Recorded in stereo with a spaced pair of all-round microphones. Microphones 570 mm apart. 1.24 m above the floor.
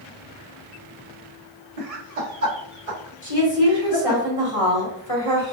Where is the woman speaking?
70° left (ahead or behind), 1.7 m.